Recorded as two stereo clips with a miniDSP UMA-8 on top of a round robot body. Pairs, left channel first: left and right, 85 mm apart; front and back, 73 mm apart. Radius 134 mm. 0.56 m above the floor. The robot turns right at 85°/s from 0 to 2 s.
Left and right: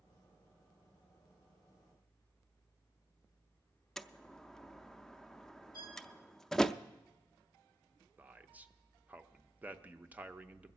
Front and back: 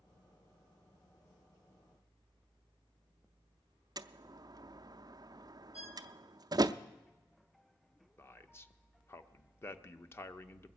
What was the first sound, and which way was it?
A door slam, 175° left.